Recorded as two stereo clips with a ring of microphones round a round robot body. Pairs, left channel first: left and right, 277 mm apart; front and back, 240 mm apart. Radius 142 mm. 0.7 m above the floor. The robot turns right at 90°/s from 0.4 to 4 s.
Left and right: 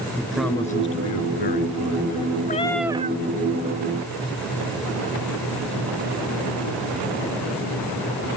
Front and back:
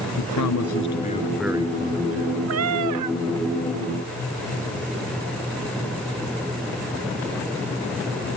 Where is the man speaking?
Straight ahead; by 2.4 s 175° left.